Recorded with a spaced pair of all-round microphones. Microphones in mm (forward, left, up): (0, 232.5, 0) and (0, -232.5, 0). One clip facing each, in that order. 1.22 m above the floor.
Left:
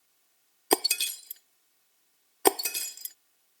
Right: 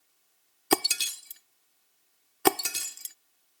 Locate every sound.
0.7 s breaking glass: 25° right (ahead or behind)